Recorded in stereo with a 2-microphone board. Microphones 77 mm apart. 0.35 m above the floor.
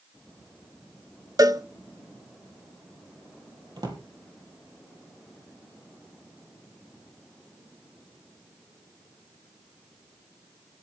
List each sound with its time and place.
1.4 s a cowbell: 50° right (ahead or behind), 0.8 m
3.8 s a drawer: 60° right (ahead or behind), 3.5 m